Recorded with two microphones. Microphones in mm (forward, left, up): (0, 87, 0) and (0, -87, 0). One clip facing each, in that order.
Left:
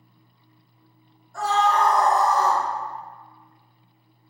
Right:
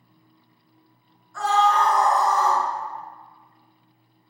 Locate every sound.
1.3 s a scream: 50° left (ahead or behind), 1.9 m; by 2.6 s 40° left (ahead or behind), 1.7 m